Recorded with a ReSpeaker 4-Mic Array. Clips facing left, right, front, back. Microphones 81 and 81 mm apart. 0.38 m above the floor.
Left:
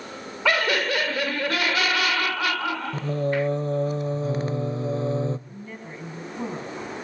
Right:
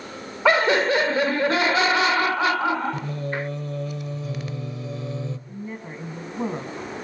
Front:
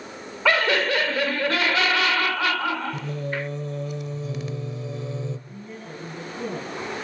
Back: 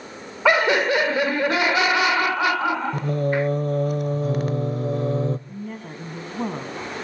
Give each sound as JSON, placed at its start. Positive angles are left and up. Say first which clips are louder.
{"t": 0.5, "sound": "laughter", "louder": "right 5 dB, back 3 dB", "azimuth_deg": -125, "distance_m": 0.9}
{"t": 2.9, "sound": "singing", "louder": "left 4 dB, back 7 dB", "azimuth_deg": 145, "distance_m": 0.6}
{"t": 5.5, "sound": "a woman speaking", "louder": "right 4 dB, back 4 dB", "azimuth_deg": -160, "distance_m": 4.0}